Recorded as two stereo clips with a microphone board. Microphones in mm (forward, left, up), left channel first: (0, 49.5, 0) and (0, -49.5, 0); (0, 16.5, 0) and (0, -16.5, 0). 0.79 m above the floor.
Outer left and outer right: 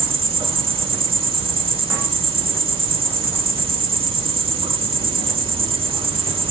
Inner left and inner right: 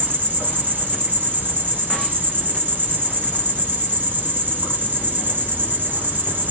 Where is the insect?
60° right (ahead or behind), 1.9 m.